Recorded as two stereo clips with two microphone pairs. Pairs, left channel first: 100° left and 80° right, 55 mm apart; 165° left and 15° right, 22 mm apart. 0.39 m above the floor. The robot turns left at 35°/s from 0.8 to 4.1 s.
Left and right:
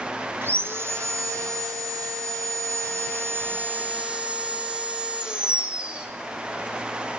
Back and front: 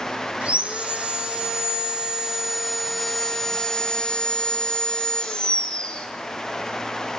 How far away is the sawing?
About 2.5 m.